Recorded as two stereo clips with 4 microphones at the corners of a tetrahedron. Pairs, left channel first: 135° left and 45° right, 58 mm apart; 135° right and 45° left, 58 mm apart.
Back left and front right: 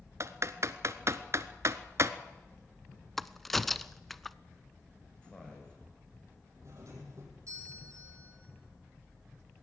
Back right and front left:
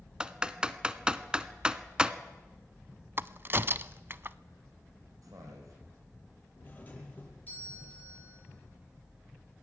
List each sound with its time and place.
0.2 s typing on a keyboard: 25° right, 0.8 m
3.2 s a crack: 55° left, 0.5 m
5.2 s a man speaking: 65° left, 7 m
6.6 s a doorbell: 75° right, 6 m